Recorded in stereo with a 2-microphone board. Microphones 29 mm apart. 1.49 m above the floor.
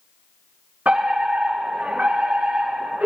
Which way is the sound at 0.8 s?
80° right.